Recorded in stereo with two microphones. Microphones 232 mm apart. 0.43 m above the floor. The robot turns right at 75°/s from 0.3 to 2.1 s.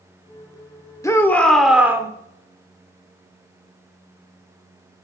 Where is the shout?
15° left (ahead or behind), 0.7 m; by 2.1 s 15° right (ahead or behind), 0.7 m.